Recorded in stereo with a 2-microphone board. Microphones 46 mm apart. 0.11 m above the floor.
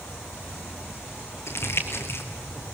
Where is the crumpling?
65° left (ahead or behind), 2.5 m.